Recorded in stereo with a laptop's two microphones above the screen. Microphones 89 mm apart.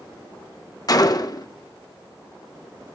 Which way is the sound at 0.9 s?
45° left (ahead or behind).